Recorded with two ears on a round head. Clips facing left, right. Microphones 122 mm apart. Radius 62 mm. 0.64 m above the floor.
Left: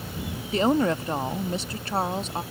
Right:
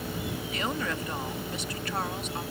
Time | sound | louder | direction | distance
0.5 | a woman speaking | left 12 dB | 25° left (ahead or behind) | ?